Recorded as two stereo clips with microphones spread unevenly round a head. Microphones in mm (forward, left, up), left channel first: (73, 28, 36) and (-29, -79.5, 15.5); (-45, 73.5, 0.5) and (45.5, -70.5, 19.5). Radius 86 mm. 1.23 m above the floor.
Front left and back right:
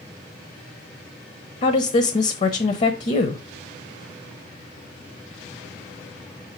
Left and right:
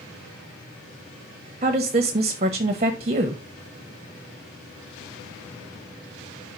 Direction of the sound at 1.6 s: Straight ahead.